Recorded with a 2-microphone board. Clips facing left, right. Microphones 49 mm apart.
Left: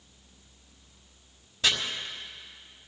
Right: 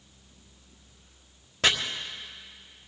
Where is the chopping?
60° right (ahead or behind), 1.7 m.